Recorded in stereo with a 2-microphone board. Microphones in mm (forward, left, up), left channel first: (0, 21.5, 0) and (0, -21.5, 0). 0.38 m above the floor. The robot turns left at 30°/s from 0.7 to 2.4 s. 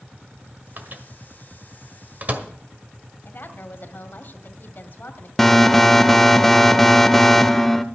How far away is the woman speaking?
About 1.8 m.